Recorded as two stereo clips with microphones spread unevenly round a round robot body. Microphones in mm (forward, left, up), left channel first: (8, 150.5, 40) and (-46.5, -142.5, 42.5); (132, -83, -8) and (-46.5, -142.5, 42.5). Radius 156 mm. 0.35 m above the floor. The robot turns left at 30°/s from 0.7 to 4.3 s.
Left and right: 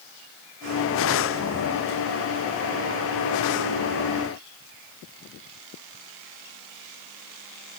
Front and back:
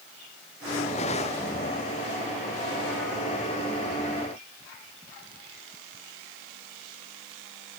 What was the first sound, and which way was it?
Only background noise.